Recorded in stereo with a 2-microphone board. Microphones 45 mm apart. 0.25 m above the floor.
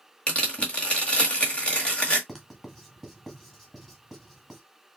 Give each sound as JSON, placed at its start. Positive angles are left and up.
{"t": 0.3, "sound": "tearing paper", "side_deg": 25, "distance_m": 1.7}
{"t": 2.3, "sound": "writing", "side_deg": 5, "distance_m": 2.0}